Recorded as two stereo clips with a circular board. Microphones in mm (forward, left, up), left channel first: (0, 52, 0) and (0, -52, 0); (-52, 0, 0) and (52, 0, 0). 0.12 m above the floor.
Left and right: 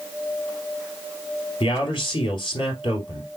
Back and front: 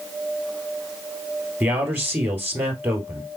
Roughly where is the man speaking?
Ahead left.